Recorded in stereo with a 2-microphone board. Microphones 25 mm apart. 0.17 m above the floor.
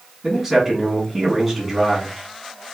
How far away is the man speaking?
About 1.5 m.